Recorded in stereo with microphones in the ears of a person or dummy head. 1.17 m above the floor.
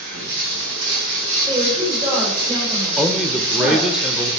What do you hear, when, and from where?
0.0 s running water: 65° right (ahead or behind), 3.5 m
1.5 s a woman speaking: 30° right (ahead or behind), 4 m
3.0 s a man speaking: centre (ahead or behind), 1.0 m